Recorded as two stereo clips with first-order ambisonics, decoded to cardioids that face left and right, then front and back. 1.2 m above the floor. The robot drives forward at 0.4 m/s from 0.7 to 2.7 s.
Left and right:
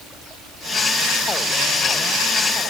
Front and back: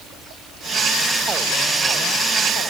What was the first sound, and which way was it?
Only background noise.